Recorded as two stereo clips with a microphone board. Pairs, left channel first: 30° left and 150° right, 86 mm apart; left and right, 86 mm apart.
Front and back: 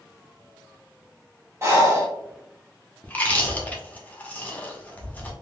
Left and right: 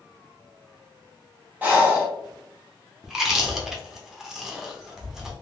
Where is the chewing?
10° right, 0.7 m.